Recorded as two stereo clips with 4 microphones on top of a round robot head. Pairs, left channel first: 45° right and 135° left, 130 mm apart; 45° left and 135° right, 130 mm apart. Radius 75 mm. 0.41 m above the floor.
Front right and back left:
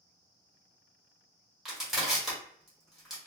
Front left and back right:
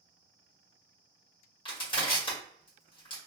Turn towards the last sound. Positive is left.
turn(degrees=50)